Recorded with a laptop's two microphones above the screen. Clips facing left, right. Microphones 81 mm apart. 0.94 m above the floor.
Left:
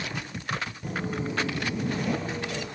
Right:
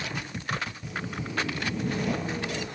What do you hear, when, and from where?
0.8 s footsteps: 50° left (ahead or behind), 1.3 m; by 2.7 s 20° right (ahead or behind), 1.9 m